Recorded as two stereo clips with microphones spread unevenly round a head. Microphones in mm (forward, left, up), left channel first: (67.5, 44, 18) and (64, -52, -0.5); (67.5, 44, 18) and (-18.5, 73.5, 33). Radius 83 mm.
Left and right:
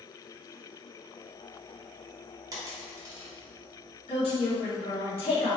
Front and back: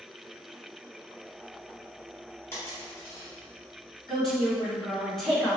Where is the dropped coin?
80° right, 1.2 m.